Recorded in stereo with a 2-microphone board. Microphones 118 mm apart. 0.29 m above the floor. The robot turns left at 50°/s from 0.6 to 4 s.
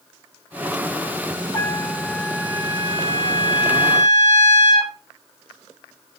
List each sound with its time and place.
1.5 s a trumpet: 25° left, 7 m; by 4.9 s 100° right, 7 m